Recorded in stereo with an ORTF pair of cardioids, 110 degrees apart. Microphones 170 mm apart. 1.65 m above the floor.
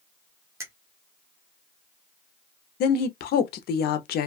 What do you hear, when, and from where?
0.6 s a finger snap: 15° right, 0.9 m
2.8 s a woman speaking: 70° left, 0.7 m